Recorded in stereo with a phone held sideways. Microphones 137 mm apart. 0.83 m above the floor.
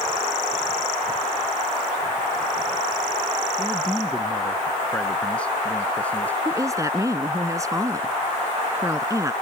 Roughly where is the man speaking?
Centre.